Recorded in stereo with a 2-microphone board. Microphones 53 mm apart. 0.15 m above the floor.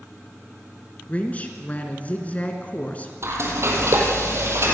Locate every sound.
1.1 s a woman speaking: 30° left (ahead or behind), 2 m
3.2 s frying: 55° right (ahead or behind), 4 m